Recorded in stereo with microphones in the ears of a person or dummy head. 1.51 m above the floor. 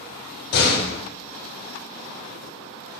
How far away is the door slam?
About 2.5 m.